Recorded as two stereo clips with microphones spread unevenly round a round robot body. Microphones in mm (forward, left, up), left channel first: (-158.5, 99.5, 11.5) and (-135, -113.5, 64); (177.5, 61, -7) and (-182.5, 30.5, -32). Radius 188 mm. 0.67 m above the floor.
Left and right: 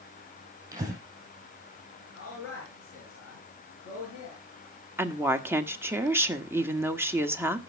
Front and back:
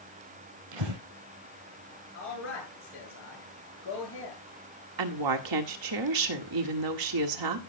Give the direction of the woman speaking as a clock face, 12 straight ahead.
6 o'clock.